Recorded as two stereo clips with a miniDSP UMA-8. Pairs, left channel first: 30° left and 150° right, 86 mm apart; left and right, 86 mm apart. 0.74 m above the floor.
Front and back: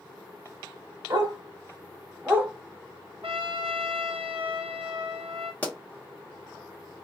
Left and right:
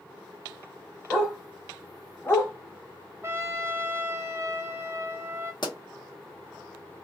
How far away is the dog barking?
About 1.0 m.